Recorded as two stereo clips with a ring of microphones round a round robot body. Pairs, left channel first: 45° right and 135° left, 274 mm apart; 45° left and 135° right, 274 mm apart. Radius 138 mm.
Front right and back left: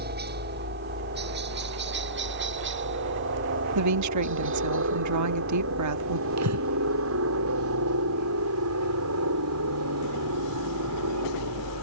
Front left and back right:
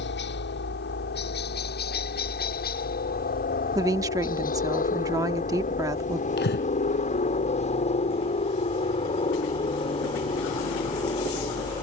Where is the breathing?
100° left.